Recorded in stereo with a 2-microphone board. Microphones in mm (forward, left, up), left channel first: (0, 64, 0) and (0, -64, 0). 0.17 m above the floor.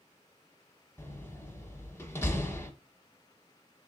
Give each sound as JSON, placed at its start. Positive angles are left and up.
{"t": 1.0, "sound": "a door slam", "side_deg": 20, "distance_m": 0.9}